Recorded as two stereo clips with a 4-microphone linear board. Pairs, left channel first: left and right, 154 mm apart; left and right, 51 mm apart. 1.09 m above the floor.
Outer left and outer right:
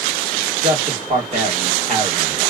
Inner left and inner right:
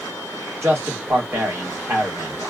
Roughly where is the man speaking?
Right.